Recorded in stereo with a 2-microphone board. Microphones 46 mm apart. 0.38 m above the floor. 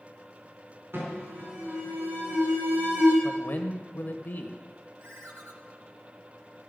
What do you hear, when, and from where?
0.9 s an alarm: 60° right (ahead or behind), 5 m
3.2 s a man speaking: 45° left (ahead or behind), 1.2 m
5.0 s a ringtone: 60° right (ahead or behind), 1.2 m